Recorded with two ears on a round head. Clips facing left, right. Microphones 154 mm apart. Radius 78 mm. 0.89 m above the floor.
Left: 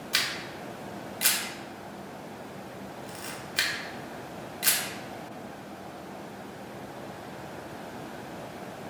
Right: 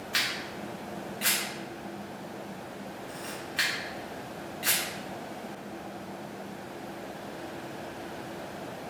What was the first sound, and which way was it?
A camera shutter, 45° left (ahead or behind).